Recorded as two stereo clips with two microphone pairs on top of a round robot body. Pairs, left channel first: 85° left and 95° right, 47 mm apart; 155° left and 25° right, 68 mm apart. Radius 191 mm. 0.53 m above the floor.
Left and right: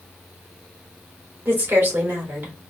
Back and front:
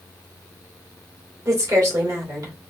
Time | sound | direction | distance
1.4 | a woman speaking | 65° right | 2.5 m